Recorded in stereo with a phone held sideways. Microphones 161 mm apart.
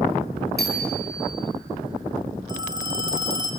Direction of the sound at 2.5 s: 25° right (ahead or behind).